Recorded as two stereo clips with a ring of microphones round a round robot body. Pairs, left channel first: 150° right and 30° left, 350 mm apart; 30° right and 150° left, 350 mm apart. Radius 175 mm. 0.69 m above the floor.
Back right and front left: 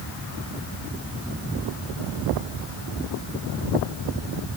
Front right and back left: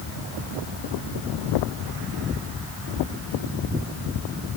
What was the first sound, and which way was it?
Only background noise.